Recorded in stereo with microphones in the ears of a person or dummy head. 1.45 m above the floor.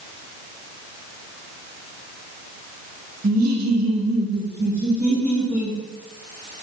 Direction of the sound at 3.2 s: 45° right (ahead or behind).